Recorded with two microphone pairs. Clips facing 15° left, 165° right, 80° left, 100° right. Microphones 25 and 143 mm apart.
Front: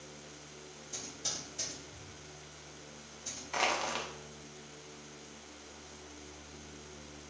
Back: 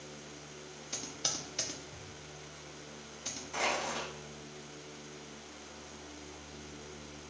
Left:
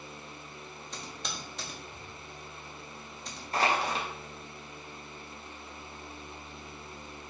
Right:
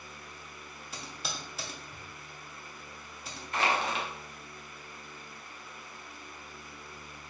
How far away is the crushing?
About 0.7 m.